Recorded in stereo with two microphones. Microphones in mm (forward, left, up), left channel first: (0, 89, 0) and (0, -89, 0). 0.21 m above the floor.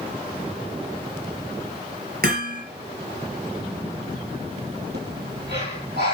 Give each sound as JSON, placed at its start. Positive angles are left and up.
{"t": 2.2, "sound": "hammering", "side_deg": -65, "distance_m": 4.5}
{"t": 4.9, "sound": "breathing", "side_deg": -80, "distance_m": 8.5}